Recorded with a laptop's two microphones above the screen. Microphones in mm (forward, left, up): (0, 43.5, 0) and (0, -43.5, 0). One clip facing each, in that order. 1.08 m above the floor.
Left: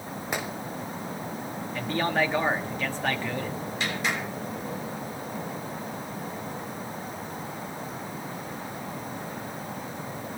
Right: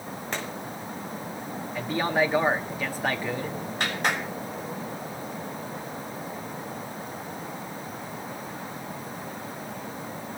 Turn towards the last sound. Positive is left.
turn(degrees=-50)  # may be behind; listen again after turning